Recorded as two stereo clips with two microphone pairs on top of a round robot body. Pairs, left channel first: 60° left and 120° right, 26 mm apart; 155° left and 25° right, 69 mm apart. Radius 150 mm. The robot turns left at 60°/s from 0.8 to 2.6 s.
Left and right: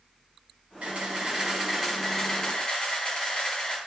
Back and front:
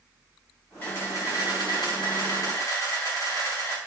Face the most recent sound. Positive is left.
turn(degrees=115)